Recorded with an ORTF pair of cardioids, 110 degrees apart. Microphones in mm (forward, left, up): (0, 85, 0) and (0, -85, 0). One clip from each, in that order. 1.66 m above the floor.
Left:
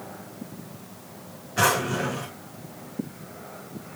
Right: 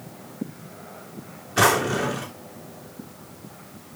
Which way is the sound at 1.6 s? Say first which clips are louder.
Right 3 dB; 45° right.